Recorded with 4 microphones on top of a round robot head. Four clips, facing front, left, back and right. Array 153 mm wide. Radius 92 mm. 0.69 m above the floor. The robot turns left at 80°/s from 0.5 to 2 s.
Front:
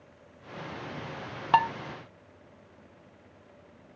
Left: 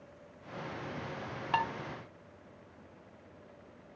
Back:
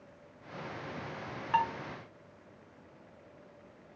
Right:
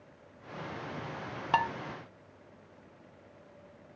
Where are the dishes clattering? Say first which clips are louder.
Right 3 dB, front 6 dB; 15° right, 1.0 m; by 1.7 s 30° right, 1.0 m.